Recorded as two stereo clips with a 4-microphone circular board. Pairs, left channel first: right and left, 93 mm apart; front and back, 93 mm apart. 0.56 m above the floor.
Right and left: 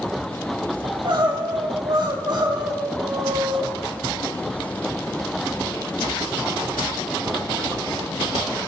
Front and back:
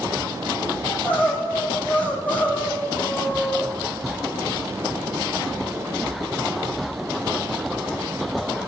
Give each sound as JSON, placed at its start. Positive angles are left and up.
{"t": 0.8, "sound": "crying", "azimuth_deg": 70, "distance_m": 2.5}